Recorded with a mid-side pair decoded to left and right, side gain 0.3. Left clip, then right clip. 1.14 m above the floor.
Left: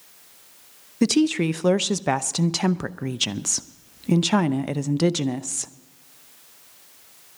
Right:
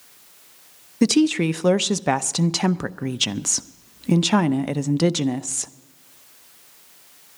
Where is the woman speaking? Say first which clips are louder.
Right 2 dB; 15° right, 0.6 m.